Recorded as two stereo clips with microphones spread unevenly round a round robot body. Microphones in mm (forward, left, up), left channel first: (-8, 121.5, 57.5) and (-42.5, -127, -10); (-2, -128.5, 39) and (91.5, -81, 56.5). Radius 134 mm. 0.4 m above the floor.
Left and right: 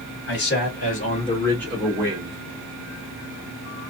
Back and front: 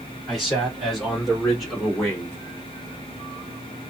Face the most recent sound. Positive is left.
turn(degrees=-90)